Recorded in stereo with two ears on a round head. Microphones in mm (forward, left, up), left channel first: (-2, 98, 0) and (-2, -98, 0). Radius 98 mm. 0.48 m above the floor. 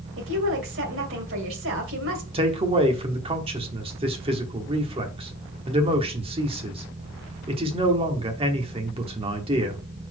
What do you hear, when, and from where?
0.2 s a woman speaking: 60° right (ahead or behind), 2 m
2.3 s a man speaking: 25° right (ahead or behind), 1.2 m